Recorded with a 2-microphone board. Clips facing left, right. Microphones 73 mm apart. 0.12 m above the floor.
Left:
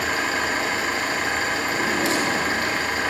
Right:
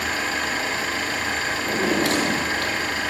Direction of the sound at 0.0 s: 25° left (ahead or behind).